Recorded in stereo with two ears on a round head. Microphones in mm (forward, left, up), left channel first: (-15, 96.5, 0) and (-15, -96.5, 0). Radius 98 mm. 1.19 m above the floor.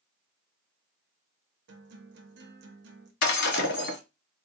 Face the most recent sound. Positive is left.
turn(degrees=55)  # may be behind; listen again after turning